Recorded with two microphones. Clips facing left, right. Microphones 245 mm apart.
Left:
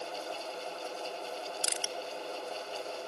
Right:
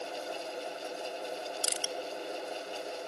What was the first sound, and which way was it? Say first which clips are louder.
Crushing: right 1 dB; 40° right (ahead or behind).